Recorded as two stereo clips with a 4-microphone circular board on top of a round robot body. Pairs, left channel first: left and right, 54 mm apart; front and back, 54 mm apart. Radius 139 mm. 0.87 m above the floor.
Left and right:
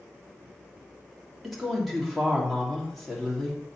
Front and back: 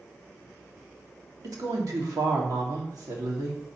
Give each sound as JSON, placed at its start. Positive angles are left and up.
{"t": 1.4, "sound": "a woman speaking", "azimuth_deg": 180, "distance_m": 1.9}